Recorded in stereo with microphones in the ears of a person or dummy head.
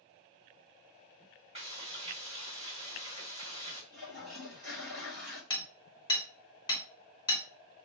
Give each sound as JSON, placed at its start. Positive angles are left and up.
{"t": 1.6, "sound": "frying", "side_deg": -35, "distance_m": 1.3}
{"t": 3.9, "sound": "a toilet flushing", "side_deg": -40, "distance_m": 2.5}
{"t": 5.5, "sound": "hammering", "side_deg": 25, "distance_m": 1.1}